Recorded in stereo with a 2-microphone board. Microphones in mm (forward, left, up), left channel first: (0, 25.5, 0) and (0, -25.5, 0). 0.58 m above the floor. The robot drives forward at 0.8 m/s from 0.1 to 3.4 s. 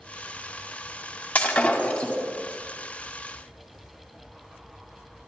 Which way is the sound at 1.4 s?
30° left (ahead or behind).